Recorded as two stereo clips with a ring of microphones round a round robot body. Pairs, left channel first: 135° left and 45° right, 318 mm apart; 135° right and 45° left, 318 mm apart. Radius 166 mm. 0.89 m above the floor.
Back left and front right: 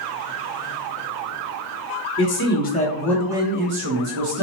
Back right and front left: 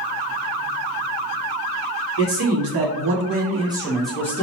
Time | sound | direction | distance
2.2 | a man speaking | 90° left | 1.0 m